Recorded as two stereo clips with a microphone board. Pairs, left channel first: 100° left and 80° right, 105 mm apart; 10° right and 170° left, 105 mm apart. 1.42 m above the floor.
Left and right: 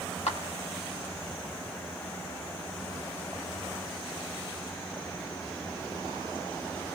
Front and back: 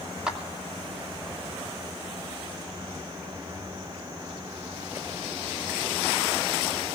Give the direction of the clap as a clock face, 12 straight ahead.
9 o'clock.